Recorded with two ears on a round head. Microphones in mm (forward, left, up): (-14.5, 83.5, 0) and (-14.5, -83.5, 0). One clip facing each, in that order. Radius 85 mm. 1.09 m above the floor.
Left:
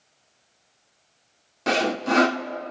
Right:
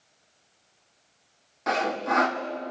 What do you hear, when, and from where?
1.7 s sawing: 35° left (ahead or behind), 1.0 m